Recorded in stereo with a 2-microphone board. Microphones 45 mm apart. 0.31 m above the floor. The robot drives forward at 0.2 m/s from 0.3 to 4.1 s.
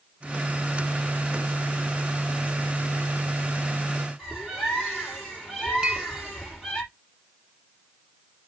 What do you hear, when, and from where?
4.2 s a bird: centre (ahead or behind), 5 m
5.8 s a clink: 25° right (ahead or behind), 1.7 m